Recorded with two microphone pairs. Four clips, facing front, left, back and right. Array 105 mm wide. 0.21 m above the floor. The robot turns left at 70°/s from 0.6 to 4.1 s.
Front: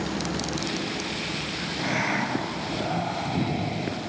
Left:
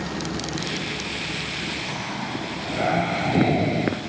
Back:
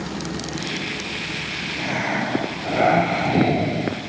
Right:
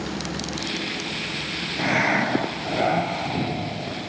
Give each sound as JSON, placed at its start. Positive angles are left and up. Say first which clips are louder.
{"t": 1.8, "sound": "breathing", "louder": "right 8 dB, back 3 dB", "azimuth_deg": -95, "distance_m": 1.1}